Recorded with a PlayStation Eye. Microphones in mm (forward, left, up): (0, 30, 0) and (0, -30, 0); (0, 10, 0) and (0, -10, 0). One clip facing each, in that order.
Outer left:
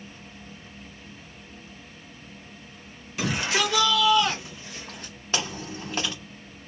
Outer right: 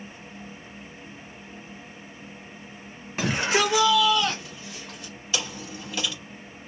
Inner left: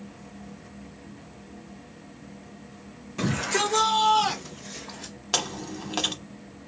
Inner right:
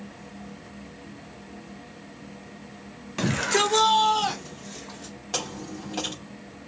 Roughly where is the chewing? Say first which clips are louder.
Outer left 2 dB, inner left 3 dB; left.